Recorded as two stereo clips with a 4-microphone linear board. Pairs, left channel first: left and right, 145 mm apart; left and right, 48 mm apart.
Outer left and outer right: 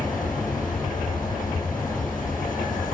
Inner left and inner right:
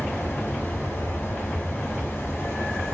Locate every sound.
0.0 s an insect: 70° left (ahead or behind), 6 m